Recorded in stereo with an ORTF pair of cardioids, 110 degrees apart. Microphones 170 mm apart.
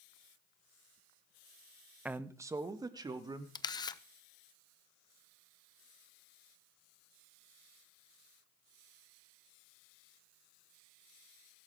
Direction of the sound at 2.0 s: 10° right.